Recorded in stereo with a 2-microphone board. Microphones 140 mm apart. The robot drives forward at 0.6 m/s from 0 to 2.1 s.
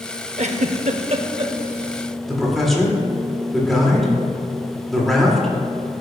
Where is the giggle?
55° right (ahead or behind), 0.6 m; by 1.5 s 40° right (ahead or behind), 0.8 m.